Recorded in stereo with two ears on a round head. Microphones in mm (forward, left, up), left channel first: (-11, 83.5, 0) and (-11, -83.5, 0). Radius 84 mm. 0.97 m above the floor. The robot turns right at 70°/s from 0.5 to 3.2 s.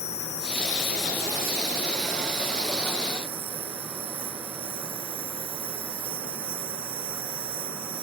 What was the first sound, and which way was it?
An insect, 145° left.